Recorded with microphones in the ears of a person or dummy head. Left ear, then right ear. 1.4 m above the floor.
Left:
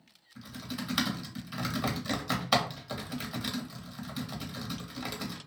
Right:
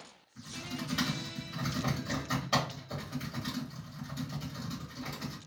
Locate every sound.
0.3 s typing on a keyboard: 50° left (ahead or behind), 1.0 m